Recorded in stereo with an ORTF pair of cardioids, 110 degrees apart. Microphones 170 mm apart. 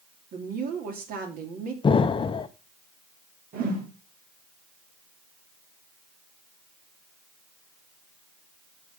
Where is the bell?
I don't hear a bell.